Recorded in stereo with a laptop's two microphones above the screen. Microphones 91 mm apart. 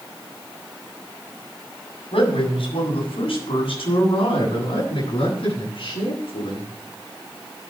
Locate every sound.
2.1 s a man speaking: 75° left (ahead or behind), 6.5 m; by 6.7 s 65° left (ahead or behind), 12 m